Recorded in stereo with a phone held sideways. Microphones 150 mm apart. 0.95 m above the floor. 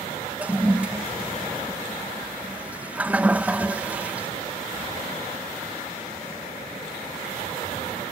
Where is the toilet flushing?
10° right (ahead or behind).